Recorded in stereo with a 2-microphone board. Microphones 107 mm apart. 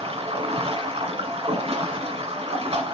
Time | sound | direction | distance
0.0 | running water | 65° right (ahead or behind) | 1.0 m